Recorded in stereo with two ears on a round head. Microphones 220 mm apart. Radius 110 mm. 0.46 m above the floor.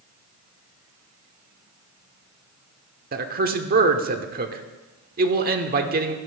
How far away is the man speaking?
About 1.2 m.